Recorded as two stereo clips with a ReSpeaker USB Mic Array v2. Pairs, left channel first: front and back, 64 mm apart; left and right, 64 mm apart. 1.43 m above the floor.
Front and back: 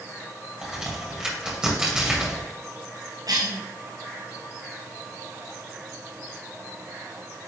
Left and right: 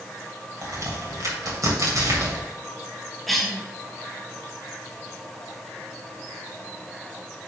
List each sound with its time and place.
0.6 s a crack: 105° right, 2 m
3.3 s a cough: straight behind, 1.3 m